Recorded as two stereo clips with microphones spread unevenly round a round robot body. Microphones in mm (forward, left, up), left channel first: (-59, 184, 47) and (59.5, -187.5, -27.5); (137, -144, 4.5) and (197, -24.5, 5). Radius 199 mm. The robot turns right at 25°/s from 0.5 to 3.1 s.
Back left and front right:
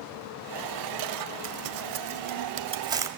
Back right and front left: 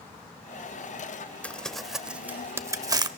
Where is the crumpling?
35° right, 1.0 m; by 3.1 s 5° left, 1.0 m.